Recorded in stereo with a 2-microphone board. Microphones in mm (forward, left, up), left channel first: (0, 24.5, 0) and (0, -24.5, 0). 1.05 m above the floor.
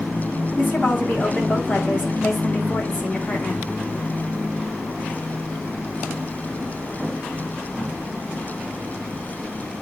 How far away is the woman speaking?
About 2.5 m.